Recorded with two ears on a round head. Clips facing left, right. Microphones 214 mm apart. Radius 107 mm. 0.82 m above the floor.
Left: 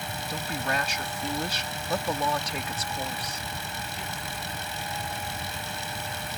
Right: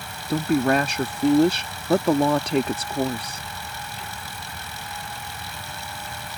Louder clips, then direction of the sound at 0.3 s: Right 13 dB; 45° right (ahead or behind).